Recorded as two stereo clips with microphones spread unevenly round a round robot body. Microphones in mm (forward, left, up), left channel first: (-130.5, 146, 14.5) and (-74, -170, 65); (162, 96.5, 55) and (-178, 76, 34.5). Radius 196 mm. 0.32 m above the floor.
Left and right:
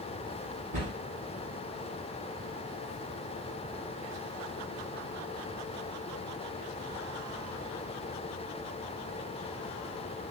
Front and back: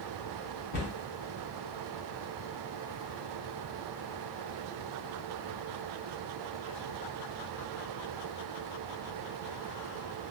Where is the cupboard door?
15° right, 1.6 m.